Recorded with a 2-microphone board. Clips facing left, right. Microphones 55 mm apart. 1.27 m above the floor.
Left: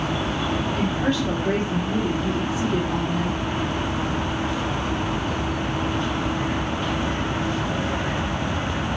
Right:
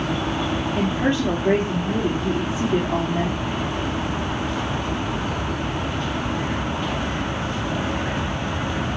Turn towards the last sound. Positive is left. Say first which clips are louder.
# right 4 dB
turn(degrees=-35)  # may be behind; listen again after turning